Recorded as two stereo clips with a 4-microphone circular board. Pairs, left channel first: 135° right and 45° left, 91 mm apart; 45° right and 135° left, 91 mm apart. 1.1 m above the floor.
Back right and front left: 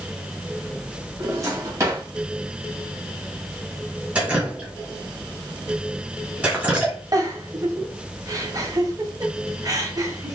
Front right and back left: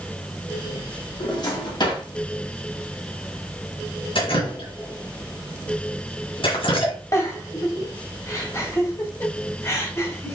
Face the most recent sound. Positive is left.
turn(degrees=5)